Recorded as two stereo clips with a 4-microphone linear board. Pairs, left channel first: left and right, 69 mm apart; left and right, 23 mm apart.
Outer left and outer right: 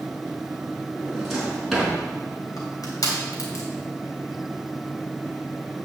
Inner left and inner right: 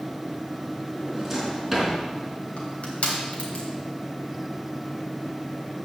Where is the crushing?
60° left (ahead or behind), 3.5 m.